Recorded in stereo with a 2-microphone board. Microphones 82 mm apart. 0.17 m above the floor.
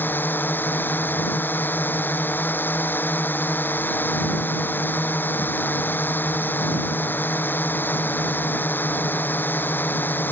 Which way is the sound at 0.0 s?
25° left (ahead or behind).